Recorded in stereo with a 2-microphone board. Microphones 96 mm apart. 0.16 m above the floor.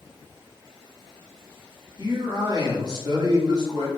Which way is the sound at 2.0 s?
45° right (ahead or behind).